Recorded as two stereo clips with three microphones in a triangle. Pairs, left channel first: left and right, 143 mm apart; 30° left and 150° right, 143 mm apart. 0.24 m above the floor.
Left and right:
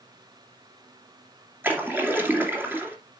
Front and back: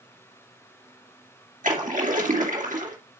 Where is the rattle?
No rattle in this recording.